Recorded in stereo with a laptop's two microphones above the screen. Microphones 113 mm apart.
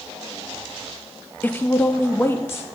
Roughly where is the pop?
I don't hear a pop.